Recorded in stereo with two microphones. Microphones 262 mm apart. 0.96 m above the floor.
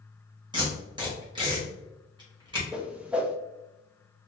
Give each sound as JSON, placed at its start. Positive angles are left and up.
{"t": 0.5, "sound": "tape being pulled", "side_deg": -15, "distance_m": 1.9}
{"t": 2.7, "sound": "a whoosh", "side_deg": -5, "distance_m": 0.6}